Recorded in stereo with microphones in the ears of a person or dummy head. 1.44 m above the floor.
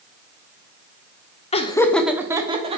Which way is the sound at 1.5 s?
30° left (ahead or behind).